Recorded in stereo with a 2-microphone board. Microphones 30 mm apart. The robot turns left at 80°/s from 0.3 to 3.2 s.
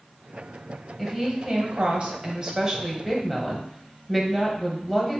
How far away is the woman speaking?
About 1.0 m.